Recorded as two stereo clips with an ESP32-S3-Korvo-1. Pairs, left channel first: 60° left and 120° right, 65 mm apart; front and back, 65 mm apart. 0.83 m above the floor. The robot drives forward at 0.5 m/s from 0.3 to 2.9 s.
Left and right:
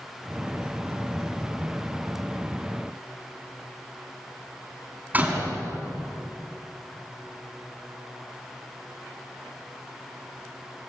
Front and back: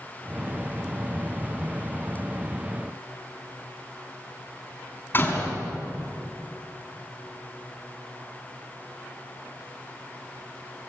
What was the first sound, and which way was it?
A door slam, 55° right.